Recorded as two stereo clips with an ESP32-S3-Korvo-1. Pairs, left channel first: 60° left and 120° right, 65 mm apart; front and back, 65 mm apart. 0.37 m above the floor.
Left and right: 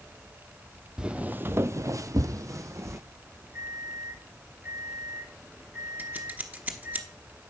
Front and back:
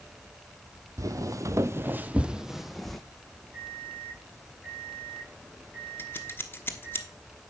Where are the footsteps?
165° left, 0.7 m; by 3.0 s 85° right, 1.0 m.